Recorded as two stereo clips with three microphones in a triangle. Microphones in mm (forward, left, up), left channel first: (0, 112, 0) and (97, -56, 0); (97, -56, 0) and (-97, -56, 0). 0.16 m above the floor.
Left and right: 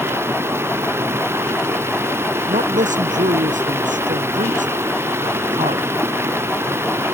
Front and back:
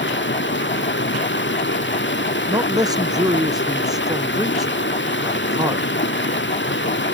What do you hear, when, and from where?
0.0 s running water: 20° left
2.5 s a man speaking: 110° right